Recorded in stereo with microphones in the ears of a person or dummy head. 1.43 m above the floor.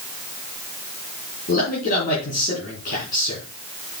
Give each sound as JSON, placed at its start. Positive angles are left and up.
{"t": 1.5, "sound": "a man speaking", "side_deg": 60, "distance_m": 3.5}